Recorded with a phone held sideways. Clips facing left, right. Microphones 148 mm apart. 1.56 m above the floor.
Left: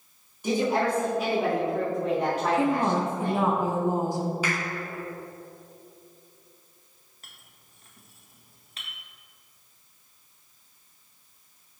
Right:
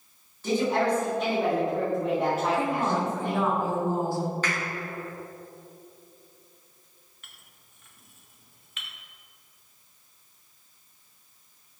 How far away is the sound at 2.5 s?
About 1.0 m.